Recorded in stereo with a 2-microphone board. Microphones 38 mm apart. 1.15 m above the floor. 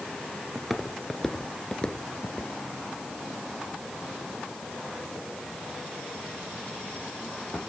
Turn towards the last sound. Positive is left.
turn(degrees=55)  # may be behind; listen again after turning